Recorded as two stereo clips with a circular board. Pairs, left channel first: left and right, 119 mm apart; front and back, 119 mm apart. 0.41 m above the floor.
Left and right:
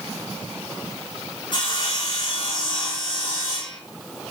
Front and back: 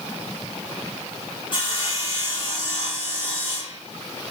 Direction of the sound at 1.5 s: 45° left.